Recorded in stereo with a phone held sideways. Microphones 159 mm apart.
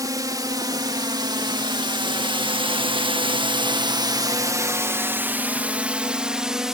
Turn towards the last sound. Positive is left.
turn(degrees=-5)  # may be behind; listen again after turning